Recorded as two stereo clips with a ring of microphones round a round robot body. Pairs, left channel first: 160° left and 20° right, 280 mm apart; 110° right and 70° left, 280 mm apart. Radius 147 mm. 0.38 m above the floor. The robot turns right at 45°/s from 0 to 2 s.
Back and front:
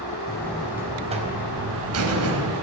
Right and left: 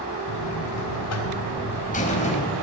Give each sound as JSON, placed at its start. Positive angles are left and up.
{"t": 0.3, "sound": "a buzzer", "azimuth_deg": -125, "distance_m": 3.0}